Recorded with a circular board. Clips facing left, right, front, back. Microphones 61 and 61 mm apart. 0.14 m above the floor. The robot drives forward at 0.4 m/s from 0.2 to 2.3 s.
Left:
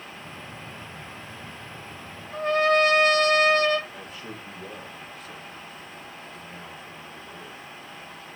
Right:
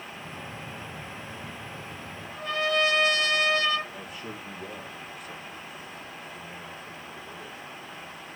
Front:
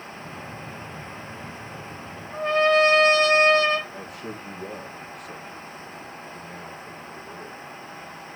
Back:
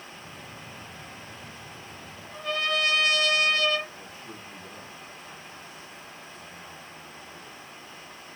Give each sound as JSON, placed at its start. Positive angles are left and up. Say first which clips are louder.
{"t": 2.3, "sound": "a trumpet", "louder": "left 6 dB, front 10 dB", "azimuth_deg": 50, "distance_m": 1.8}
{"t": 3.9, "sound": "a man speaking", "louder": "even, front 7 dB", "azimuth_deg": -10, "distance_m": 5.0}